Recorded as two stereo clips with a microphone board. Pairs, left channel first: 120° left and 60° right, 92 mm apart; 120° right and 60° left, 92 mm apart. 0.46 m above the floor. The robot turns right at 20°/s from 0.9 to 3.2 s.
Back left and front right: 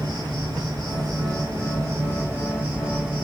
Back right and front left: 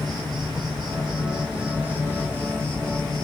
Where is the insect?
25° right, 1.2 m; by 3.2 s 20° left, 1.2 m.